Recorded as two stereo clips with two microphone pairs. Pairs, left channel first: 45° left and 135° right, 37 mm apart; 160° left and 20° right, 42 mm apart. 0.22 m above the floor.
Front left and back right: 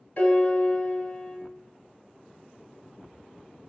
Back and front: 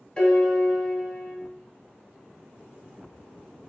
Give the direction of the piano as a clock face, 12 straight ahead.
9 o'clock.